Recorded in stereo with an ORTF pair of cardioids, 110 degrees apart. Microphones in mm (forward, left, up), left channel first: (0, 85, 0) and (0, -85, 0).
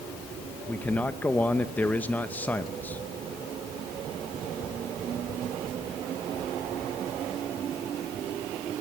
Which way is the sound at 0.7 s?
10° left.